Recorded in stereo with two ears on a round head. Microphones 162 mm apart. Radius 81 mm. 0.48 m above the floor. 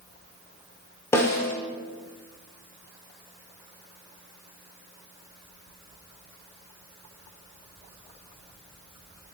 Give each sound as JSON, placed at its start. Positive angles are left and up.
{"t": 1.1, "sound": "a snare drum", "side_deg": 15, "distance_m": 0.8}